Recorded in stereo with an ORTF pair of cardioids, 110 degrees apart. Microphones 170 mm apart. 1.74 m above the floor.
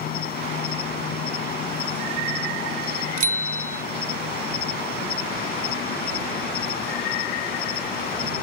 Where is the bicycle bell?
50° right.